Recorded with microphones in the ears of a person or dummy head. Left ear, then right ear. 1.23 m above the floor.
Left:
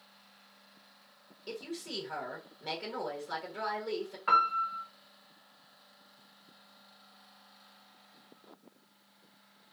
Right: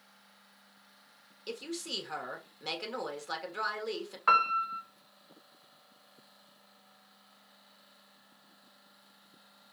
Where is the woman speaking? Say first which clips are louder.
Right 2 dB; 35° right (ahead or behind), 1.4 m.